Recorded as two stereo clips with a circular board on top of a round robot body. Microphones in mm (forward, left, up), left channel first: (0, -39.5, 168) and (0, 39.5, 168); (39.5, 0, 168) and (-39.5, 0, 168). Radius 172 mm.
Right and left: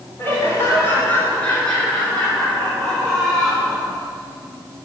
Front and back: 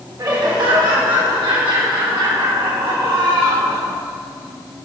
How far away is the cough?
I don't hear a cough.